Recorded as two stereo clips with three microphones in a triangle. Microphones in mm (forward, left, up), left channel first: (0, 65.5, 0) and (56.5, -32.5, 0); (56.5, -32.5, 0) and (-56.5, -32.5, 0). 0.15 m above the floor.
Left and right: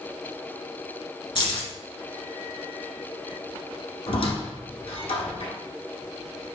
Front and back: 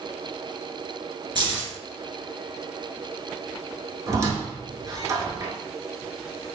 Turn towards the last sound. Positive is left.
turn(degrees=125)